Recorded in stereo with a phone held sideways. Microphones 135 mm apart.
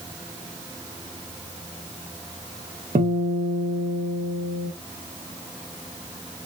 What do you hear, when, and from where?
3.0 s a guitar: 65° right (ahead or behind), 1.6 m